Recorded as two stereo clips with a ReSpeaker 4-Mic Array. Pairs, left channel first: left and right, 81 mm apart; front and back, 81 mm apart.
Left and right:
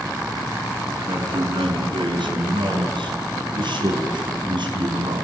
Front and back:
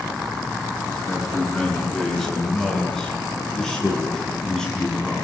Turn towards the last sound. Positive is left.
turn(degrees=-80)